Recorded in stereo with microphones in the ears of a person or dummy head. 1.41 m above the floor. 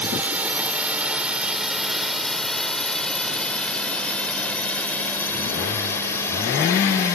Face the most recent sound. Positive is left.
turn(degrees=15)  # may be behind; listen again after turning